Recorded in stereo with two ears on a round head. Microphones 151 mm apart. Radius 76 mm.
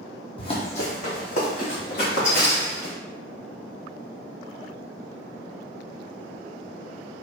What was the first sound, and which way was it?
Running footsteps, 35° left (ahead or behind).